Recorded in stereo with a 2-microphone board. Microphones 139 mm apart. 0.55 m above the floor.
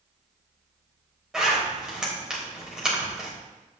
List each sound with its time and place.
1.3 s a zipper: 5° right (ahead or behind), 3 m